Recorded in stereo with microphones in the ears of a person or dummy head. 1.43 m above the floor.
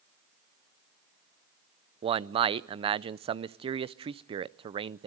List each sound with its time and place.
2.0 s a man speaking: 30° right (ahead or behind), 0.5 m